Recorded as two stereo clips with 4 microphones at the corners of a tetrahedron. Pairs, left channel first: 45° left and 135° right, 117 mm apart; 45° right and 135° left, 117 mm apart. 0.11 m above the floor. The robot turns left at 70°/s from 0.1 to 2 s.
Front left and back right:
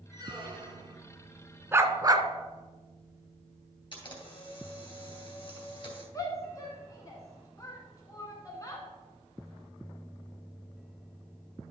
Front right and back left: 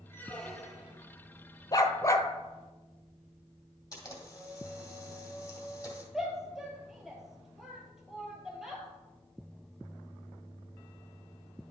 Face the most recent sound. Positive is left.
turn(degrees=55)